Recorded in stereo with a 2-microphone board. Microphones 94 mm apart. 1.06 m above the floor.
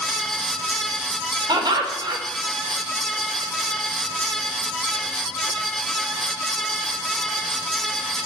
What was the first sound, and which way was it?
Laughter, 45° right (ahead or behind).